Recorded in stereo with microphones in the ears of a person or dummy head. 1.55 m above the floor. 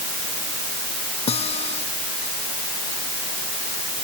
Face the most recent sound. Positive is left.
turn(degrees=30)  # may be behind; listen again after turning